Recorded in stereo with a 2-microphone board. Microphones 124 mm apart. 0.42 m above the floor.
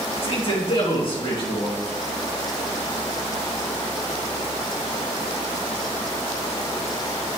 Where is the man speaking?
45° left (ahead or behind), 4.5 m.